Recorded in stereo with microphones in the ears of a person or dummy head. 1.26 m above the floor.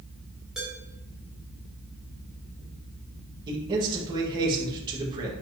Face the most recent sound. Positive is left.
turn(degrees=-25)  # may be behind; listen again after turning